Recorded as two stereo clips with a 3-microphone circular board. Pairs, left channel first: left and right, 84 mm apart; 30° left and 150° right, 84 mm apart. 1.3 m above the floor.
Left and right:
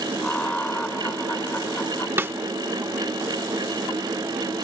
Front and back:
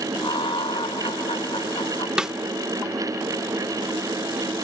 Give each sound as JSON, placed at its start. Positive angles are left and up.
{"t": 0.2, "sound": "laughter", "azimuth_deg": 10}
{"t": 2.2, "sound": "a snare drum", "azimuth_deg": -80}